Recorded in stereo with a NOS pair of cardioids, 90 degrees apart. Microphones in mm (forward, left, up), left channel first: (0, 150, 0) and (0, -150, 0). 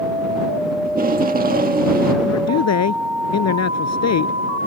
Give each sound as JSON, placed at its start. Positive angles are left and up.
{"t": 0.8, "sound": "tape being pulled", "azimuth_deg": -30}
{"t": 2.2, "sound": "a man speaking", "azimuth_deg": 55}